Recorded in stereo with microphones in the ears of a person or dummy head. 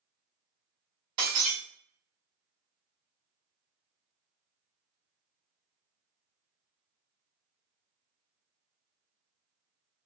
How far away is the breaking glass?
About 0.8 m.